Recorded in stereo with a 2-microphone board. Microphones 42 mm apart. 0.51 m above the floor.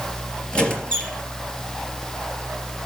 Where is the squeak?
25° left (ahead or behind), 3.5 m.